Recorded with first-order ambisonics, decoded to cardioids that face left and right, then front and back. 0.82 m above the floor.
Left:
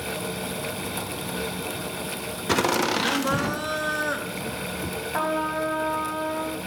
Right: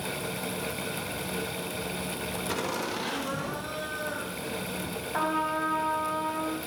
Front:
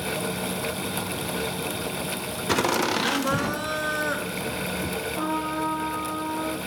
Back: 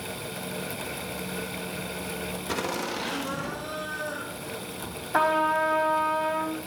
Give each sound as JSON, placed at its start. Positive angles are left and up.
{"t": 2.5, "sound": "laughter", "azimuth_deg": 50, "distance_m": 0.9}
{"t": 5.1, "sound": "a trumpet", "azimuth_deg": 170, "distance_m": 2.5}